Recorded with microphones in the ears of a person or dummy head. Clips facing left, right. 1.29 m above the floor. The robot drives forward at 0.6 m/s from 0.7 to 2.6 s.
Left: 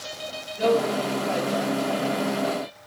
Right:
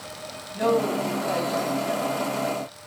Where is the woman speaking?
70° right (ahead or behind), 3 m; by 2.0 s 55° right (ahead or behind), 3.5 m.